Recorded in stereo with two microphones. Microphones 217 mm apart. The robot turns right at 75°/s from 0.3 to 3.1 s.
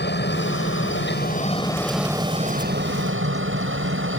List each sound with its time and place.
0.0 s a helicopter: 50° left (ahead or behind); by 4.2 s 65° right (ahead or behind)